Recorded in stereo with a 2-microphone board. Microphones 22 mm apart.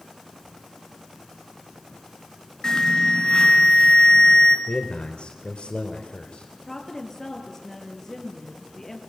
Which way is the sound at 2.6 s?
35° left (ahead or behind).